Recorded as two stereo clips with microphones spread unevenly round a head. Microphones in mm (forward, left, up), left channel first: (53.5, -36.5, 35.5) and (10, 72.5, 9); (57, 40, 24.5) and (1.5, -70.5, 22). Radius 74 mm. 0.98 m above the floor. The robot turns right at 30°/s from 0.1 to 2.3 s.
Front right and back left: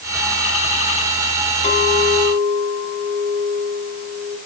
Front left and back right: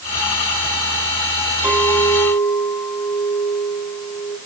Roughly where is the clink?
Ahead right.